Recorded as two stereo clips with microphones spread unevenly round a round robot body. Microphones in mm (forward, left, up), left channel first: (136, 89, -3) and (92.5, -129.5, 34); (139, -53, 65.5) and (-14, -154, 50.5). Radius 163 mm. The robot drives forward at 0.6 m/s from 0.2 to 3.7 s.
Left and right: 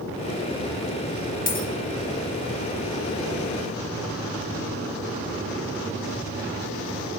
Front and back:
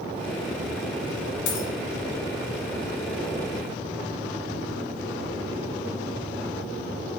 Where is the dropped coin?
25° left, 1.1 m; by 1.7 s 30° left, 1.0 m.